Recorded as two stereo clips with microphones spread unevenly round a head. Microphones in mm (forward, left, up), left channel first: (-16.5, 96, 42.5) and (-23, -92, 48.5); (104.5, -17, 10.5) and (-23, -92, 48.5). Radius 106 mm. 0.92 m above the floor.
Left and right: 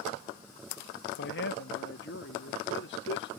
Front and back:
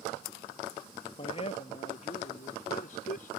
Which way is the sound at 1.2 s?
80° left.